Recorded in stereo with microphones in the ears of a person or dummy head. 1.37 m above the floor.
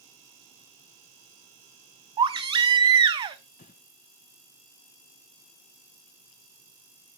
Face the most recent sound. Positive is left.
turn(degrees=40)  # may be behind; listen again after turning